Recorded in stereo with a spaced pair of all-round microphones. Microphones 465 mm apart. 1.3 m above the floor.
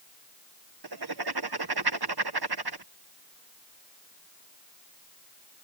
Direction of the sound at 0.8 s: 50° right (ahead or behind).